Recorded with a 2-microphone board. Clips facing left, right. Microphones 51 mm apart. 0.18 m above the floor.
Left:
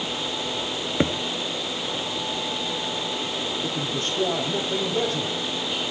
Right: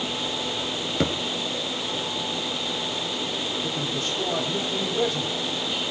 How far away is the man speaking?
About 6 m.